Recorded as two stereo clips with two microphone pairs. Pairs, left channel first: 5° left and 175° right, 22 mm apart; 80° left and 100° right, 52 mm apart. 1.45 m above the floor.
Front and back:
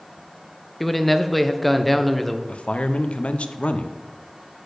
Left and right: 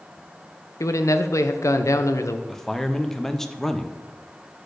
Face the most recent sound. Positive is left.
turn(degrees=0)